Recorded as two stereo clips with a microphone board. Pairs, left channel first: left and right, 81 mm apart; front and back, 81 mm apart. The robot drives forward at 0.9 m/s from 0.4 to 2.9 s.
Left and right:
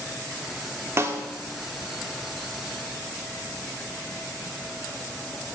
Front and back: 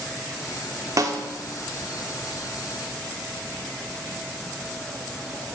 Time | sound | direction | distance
1.0 | a snare drum | 140° right | 1.2 m